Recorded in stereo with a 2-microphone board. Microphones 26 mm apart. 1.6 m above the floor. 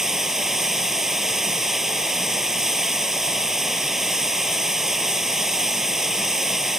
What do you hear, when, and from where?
0.0 s running water: 20° right (ahead or behind)